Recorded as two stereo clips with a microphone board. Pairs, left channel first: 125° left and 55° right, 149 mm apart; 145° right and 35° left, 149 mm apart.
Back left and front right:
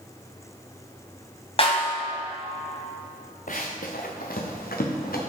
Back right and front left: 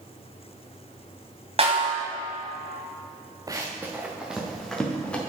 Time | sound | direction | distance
1.6 | a snare drum | 80° left | 2.5 m
3.5 | running footsteps | 100° left | 1.7 m